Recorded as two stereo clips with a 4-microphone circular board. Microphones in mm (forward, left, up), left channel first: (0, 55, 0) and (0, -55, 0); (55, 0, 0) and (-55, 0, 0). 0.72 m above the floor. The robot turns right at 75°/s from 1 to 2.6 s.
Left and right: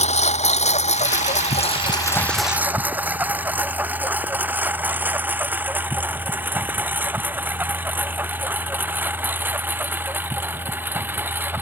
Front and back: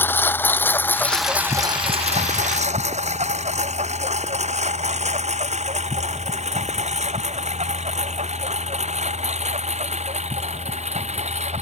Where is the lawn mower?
75° left; by 11.6 s 165° right.